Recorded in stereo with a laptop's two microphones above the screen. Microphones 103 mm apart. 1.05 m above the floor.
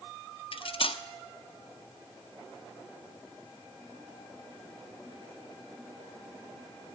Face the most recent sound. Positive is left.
turn(degrees=60)  # may be behind; listen again after turning